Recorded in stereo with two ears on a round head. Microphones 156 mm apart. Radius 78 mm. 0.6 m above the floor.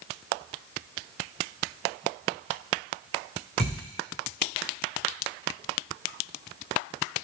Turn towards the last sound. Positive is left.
turn(degrees=-40)  # may be behind; listen again after turning